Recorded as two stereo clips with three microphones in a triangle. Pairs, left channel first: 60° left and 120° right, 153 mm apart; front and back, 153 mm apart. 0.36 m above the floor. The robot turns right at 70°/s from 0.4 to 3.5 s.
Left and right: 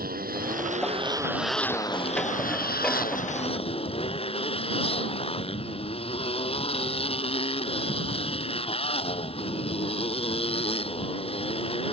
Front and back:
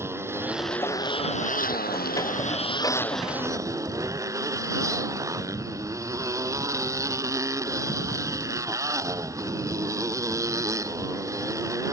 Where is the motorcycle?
105° right; by 11.9 s 110° left.